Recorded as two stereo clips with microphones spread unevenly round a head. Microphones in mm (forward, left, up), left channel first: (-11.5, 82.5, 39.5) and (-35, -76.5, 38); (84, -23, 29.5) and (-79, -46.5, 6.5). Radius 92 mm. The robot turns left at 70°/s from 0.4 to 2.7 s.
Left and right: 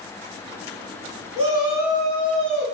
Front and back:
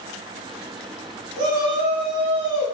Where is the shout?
140° right, 1.7 m; by 2.6 s 125° left, 1.7 m.